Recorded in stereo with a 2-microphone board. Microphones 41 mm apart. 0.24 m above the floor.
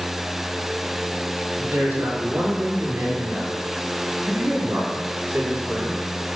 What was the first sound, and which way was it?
A man speaking, 65° right (ahead or behind).